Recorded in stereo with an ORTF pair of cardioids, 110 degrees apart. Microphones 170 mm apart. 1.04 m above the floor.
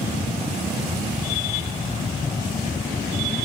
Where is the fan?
20° left.